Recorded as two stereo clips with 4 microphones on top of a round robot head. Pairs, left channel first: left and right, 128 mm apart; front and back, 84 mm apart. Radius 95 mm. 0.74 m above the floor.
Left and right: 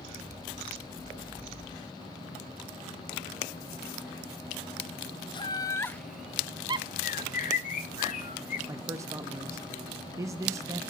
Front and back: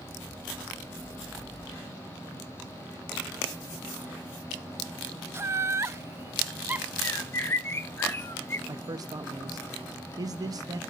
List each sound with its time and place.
5.3 s laughter: 130° left, 0.8 m; by 6.9 s 105° right, 0.7 m
7.0 s a bird: 65° left, 0.9 m
8.7 s a man speaking: 150° right, 0.7 m